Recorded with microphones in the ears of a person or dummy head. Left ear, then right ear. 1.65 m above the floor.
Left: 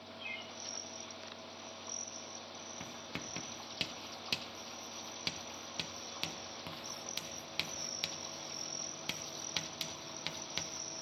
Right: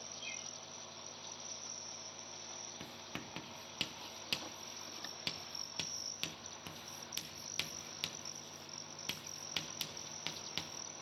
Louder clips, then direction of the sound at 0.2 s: Left 4 dB; 25° left (ahead or behind).